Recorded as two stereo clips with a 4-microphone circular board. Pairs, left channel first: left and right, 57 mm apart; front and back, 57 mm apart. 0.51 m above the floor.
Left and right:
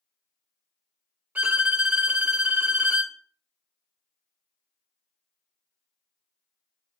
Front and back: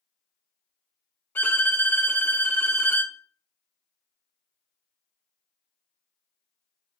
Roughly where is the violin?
Ahead right.